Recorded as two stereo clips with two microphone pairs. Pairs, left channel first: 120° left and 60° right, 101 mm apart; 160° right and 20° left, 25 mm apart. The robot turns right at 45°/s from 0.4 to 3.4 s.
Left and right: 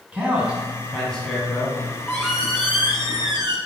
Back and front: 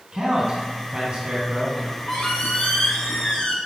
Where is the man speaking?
5° left, 1.4 m; by 1.7 s 60° left, 1.4 m.